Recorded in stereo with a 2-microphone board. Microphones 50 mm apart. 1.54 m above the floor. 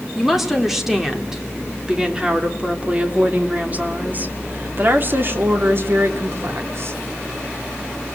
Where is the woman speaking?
Centre (ahead or behind), 4 m; by 7.0 s 60° right (ahead or behind), 3.5 m.